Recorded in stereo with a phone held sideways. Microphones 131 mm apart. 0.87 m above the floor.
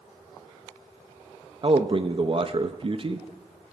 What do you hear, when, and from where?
1.6 s a man speaking: 45° right (ahead or behind), 0.6 m